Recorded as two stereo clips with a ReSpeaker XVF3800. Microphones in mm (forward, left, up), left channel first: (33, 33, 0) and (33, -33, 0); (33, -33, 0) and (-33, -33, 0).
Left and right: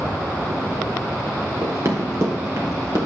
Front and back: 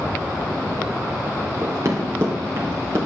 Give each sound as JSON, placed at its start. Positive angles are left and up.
{"t": 1.6, "sound": "running footsteps", "azimuth_deg": -135, "distance_m": 2.5}